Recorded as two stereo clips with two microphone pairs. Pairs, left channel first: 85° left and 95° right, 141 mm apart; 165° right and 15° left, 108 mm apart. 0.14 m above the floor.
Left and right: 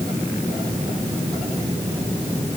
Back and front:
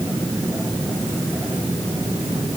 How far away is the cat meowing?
No cat meowing in this recording.